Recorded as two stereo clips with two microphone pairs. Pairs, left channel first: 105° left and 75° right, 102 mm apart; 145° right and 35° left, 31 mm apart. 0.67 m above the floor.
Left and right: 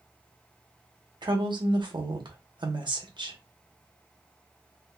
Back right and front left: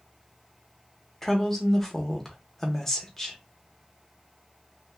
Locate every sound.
1.2 s a woman speaking: 65° right, 0.9 m